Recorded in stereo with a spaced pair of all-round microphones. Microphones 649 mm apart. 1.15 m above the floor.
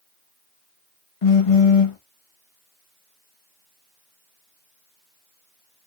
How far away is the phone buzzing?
About 0.7 m.